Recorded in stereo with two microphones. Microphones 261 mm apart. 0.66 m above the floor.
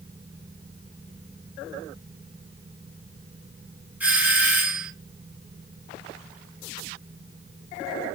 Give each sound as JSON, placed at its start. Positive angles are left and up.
{"t": 4.0, "sound": "a doorbell", "side_deg": -5, "distance_m": 1.3}